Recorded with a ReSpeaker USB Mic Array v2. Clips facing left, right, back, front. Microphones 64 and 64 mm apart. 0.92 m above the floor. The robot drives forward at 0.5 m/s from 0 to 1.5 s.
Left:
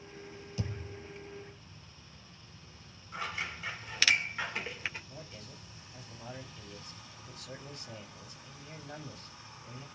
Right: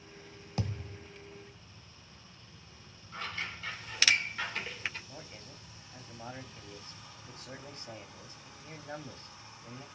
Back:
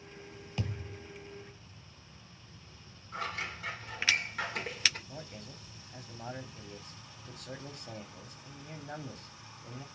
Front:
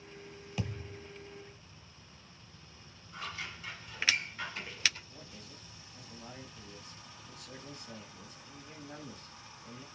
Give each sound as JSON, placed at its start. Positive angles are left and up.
{"t": 0.6, "sound": "a thud", "azimuth_deg": -85, "distance_m": 1.3}
{"t": 3.1, "sound": "scissors", "azimuth_deg": 165, "distance_m": 2.5}
{"t": 5.1, "sound": "a man speaking", "azimuth_deg": -155, "distance_m": 2.0}